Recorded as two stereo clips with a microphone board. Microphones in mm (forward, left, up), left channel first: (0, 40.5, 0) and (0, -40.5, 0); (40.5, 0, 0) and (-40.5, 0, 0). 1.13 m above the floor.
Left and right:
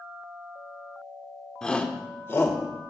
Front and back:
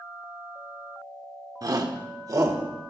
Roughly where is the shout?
Behind.